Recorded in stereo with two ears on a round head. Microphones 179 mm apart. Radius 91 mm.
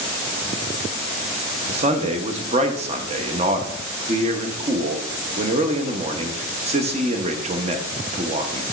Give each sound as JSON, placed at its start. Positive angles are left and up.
{"t": 1.7, "sound": "a man speaking", "side_deg": -35, "distance_m": 0.8}